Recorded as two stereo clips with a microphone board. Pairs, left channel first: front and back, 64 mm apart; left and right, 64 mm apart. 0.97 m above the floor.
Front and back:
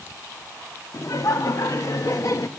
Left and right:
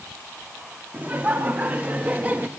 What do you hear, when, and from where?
0.9 s laughter: 30° right, 1.9 m; by 2.5 s 25° right, 1.0 m